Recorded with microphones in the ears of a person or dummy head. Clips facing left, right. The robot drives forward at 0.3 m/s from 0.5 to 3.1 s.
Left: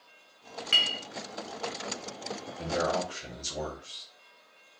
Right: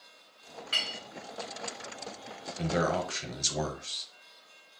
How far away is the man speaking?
About 0.7 m.